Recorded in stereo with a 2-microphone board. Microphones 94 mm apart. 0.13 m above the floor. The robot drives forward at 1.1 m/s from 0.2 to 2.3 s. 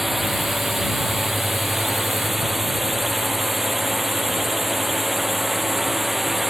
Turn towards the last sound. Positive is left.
turn(degrees=0)  # may be behind; listen again after turning